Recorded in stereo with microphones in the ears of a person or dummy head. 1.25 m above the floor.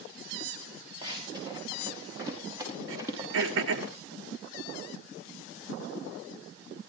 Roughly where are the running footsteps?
Right.